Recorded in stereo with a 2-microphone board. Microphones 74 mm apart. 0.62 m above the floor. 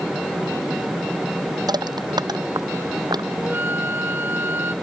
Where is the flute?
30° right (ahead or behind).